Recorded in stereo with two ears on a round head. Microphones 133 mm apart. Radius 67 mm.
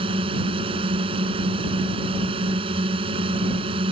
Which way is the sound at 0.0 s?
35° right (ahead or behind).